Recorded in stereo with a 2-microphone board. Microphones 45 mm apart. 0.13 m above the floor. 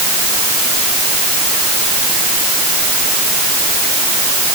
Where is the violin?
No violin in this recording.